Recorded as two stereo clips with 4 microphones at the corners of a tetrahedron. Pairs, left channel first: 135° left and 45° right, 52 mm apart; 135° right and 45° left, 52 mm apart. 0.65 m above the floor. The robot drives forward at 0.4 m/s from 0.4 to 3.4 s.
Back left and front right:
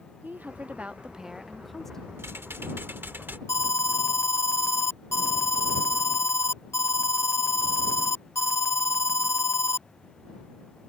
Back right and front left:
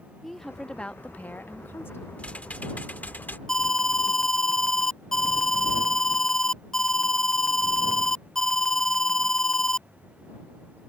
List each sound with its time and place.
0.2 s a woman speaking: 50° right; by 2.1 s 150° right
2.2 s typing on a keyboard: 75° right; by 3.4 s 90° right
3.5 s an alarm: 145° left